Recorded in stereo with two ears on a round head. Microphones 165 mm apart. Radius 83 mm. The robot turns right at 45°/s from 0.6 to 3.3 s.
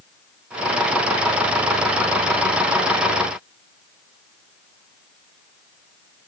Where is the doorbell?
I don't hear a doorbell.